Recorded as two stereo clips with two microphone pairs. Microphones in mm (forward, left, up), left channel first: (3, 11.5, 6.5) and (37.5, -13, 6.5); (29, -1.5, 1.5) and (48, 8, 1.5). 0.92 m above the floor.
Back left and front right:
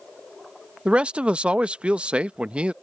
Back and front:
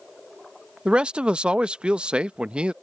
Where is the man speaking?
20° left.